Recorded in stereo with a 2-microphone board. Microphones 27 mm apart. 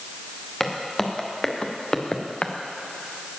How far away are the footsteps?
About 2.5 m.